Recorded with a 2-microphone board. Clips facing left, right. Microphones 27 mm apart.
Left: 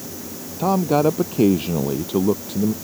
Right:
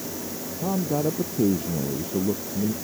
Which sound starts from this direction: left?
A man speaking, at 0.6 s.